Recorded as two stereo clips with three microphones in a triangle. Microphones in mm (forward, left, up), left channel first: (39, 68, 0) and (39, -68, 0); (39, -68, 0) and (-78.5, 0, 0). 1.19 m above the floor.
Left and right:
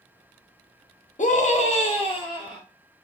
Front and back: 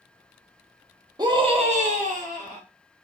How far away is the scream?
About 0.6 m.